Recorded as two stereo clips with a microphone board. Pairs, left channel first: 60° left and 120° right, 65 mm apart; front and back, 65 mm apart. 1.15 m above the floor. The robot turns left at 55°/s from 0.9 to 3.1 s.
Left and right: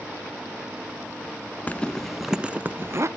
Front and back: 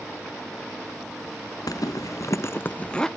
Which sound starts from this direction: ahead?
A zipper, at 1.7 s.